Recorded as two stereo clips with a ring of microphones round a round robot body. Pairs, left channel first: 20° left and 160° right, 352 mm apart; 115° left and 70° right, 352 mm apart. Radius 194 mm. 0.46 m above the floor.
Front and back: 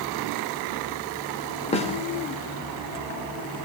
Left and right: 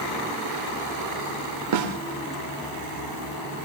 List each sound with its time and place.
1.7 s a snare drum: 45° right, 2.5 m